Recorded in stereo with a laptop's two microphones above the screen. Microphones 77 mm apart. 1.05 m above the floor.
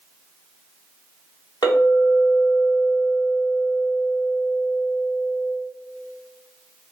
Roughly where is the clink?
Left.